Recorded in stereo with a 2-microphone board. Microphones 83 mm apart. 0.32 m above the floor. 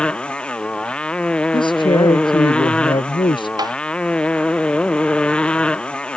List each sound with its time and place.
0.0 s a motorcycle: 10° left (ahead or behind)
1.5 s a man speaking: 75° left (ahead or behind)
3.6 s tapping: 55° right (ahead or behind)